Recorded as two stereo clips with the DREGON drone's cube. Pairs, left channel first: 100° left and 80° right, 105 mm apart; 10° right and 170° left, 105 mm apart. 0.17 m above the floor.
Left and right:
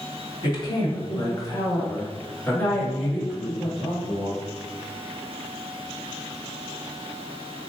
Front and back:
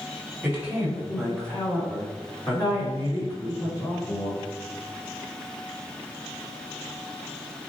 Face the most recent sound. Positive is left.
turn(degrees=10)